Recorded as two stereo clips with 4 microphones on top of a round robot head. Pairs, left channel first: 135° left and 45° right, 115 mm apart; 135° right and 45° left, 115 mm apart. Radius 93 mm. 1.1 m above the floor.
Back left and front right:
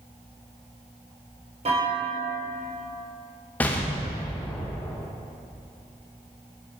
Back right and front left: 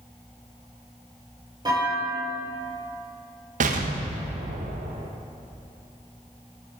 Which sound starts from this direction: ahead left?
An explosion, at 3.6 s.